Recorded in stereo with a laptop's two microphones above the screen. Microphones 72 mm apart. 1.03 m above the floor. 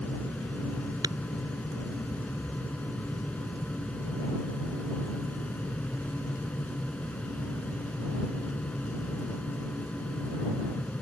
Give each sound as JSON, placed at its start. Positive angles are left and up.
{"t": 0.0, "sound": "a fan", "side_deg": 15}
{"t": 1.0, "sound": "tapping", "side_deg": -75}